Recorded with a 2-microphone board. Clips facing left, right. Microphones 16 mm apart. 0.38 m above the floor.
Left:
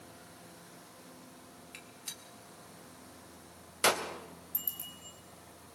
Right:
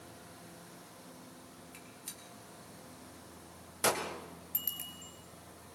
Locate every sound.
1.7 s a gunshot: 30° left (ahead or behind), 2.5 m
4.5 s a bicycle bell: 45° right (ahead or behind), 4.5 m